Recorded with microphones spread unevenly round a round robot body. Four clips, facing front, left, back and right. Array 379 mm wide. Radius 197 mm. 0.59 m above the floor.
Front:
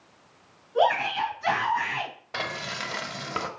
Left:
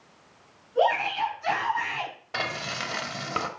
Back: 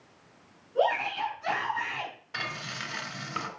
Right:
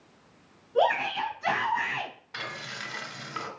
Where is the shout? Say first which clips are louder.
Left 1 dB, front 4 dB; 45° right, 6 m.